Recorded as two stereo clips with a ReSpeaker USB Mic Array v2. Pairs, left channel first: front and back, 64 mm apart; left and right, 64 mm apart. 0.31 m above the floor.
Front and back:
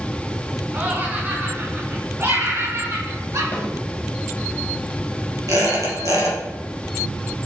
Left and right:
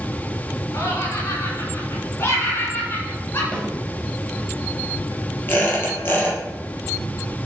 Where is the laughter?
115° left, 3 m; by 3.4 s 145° left, 4 m.